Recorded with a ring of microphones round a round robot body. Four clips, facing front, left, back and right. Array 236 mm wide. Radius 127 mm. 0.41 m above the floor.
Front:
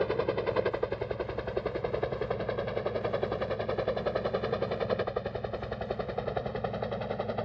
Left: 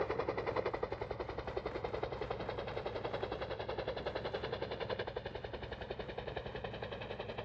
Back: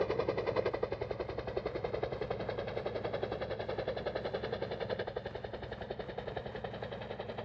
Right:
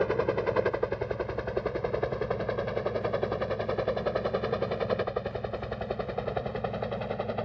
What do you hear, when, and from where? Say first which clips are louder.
0.0 s a helicopter: right 10 dB, front 4 dB; 70° right; by 7.5 s 55° right